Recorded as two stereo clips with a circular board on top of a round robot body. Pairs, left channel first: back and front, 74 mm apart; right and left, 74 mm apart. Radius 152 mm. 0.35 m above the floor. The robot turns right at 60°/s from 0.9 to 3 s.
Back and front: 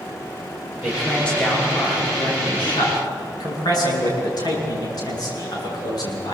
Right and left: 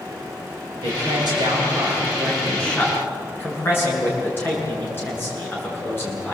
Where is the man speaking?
85° left, 8.5 m; by 6.3 s 150° right, 8.5 m.